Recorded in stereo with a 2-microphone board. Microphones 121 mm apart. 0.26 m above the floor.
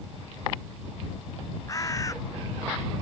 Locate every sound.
1.7 s a bird: 30° left (ahead or behind)